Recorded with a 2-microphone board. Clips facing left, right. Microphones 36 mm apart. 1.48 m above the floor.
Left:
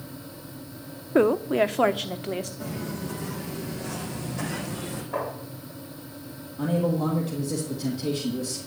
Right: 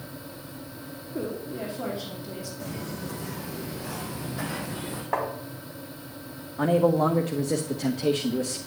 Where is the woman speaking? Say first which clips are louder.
Left 13 dB; 70° left (ahead or behind), 0.6 m; by 2.5 s 60° left (ahead or behind), 1.3 m.